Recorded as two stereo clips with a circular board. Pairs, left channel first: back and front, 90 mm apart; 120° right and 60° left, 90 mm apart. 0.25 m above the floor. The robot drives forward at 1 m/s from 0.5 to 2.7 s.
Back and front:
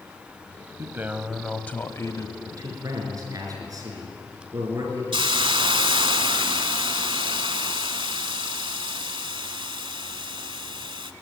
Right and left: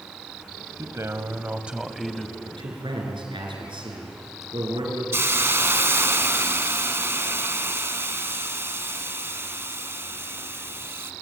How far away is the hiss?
About 0.8 m.